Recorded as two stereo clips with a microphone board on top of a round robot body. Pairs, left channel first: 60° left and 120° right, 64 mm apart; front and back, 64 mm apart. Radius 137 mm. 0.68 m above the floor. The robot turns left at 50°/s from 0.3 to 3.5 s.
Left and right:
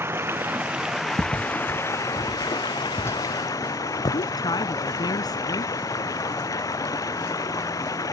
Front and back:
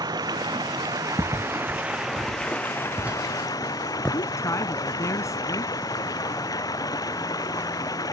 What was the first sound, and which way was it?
Running water, 175° right.